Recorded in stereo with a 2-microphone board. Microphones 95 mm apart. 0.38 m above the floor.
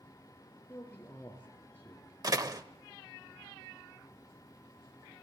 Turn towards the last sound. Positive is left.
turn(degrees=-40)  # may be behind; listen again after turning